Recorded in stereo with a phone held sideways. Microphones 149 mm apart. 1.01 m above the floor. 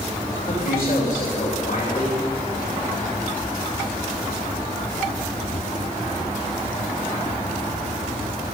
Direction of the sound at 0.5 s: 50° left (ahead or behind).